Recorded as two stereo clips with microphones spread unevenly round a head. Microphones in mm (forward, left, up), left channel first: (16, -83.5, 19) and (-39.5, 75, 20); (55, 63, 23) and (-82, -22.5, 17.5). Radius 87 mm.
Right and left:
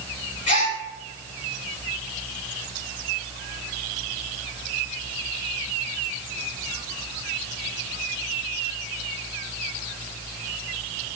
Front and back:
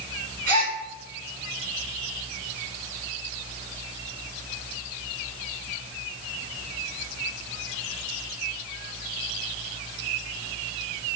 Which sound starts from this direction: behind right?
A gasp, at 0.5 s.